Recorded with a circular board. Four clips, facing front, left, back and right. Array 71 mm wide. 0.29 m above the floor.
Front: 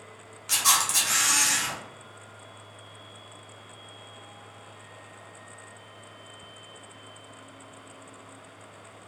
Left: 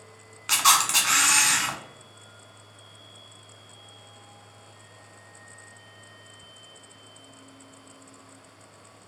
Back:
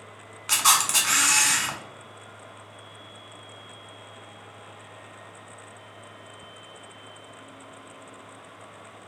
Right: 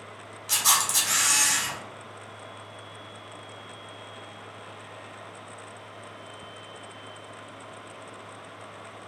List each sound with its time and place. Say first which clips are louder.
0.5 s a camera shutter: left 5 dB, back 3 dB; 120° left, 0.5 m